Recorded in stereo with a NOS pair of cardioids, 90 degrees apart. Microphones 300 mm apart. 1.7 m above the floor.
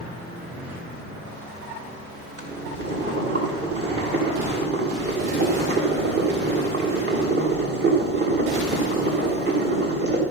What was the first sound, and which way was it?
Boiling, 40° right.